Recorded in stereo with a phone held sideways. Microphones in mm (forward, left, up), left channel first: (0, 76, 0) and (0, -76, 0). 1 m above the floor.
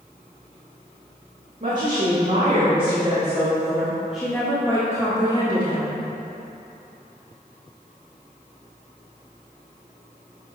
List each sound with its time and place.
1.6 s a woman speaking: 55° right (ahead or behind), 1.9 m; by 6.0 s 35° left (ahead or behind), 1.9 m